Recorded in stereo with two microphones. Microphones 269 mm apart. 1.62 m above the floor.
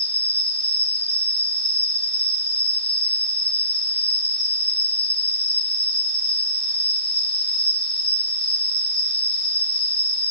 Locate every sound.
0.0 s an insect: 35° left (ahead or behind), 1.6 m